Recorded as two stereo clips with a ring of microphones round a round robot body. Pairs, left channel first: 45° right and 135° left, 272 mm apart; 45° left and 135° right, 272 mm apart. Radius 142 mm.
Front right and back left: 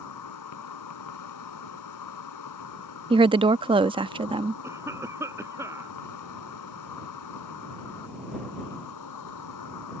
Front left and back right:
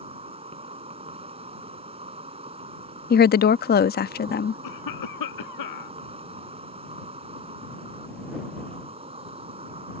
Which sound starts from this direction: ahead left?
A cough, at 4.6 s.